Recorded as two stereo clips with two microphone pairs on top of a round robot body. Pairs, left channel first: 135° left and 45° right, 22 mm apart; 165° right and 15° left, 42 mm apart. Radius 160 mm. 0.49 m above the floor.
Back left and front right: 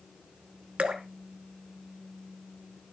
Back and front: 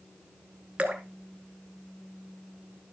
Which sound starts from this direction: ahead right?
Dripping, at 0.8 s.